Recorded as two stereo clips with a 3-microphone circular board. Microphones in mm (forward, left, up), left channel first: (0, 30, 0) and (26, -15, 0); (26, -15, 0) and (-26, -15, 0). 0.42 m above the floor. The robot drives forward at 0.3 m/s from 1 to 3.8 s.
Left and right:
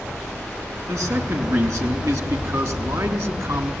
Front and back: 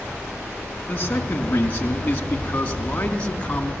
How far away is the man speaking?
About 4.5 m.